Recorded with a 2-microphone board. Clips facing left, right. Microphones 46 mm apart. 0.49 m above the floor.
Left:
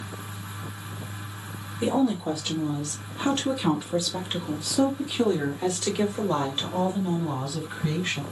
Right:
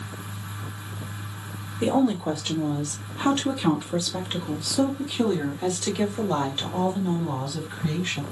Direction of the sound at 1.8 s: 15° right (ahead or behind).